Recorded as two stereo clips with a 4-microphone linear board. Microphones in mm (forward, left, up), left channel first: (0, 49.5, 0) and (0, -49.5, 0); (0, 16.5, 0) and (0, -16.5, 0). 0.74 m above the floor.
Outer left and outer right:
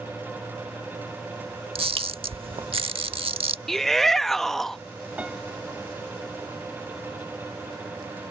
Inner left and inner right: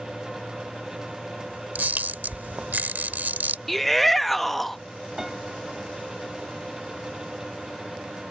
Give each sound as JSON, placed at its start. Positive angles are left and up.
{"t": 1.8, "sound": "a camera shutter", "side_deg": -65}
{"t": 3.7, "sound": "a shout", "side_deg": 5}
{"t": 5.2, "sound": "a piano", "side_deg": -10}